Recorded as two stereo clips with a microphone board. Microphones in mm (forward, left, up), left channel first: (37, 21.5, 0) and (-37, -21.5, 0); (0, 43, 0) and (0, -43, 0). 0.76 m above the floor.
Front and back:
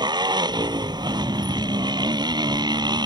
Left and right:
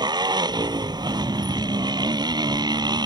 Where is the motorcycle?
120° right.